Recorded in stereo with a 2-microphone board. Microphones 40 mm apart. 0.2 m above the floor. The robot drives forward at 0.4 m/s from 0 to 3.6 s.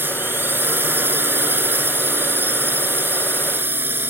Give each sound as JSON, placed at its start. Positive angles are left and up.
{"t": 0.0, "sound": "a drone", "side_deg": -60}